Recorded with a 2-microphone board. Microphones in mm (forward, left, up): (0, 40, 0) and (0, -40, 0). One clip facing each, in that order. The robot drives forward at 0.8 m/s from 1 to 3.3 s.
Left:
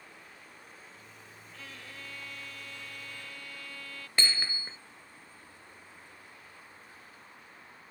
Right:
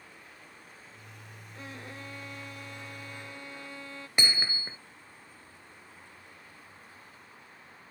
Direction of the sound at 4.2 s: 15° right (ahead or behind).